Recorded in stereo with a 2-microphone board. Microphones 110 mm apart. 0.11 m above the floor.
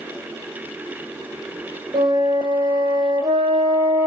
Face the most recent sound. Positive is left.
turn(degrees=-40)  # may be behind; listen again after turning